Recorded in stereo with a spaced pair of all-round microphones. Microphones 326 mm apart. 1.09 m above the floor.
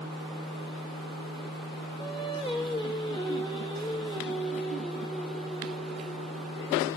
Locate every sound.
2.0 s singing: 15° left (ahead or behind), 2.5 m